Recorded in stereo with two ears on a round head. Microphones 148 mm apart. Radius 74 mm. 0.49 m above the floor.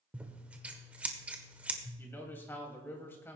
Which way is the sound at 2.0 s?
15° left (ahead or behind).